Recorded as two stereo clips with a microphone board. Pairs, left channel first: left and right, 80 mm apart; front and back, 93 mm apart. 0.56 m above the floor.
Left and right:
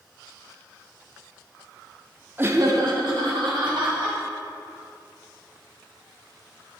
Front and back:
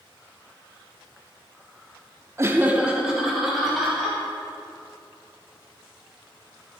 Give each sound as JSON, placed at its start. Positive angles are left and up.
{"t": 2.4, "sound": "laughter", "azimuth_deg": -140, "distance_m": 0.7}